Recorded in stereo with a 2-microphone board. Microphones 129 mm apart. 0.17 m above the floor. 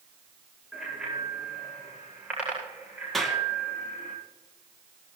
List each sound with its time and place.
0.7 s a bicycle bell: 5° right (ahead or behind), 9.5 m; by 4.1 s 15° right (ahead or behind), 9 m
3.1 s a clap: centre (ahead or behind), 2.5 m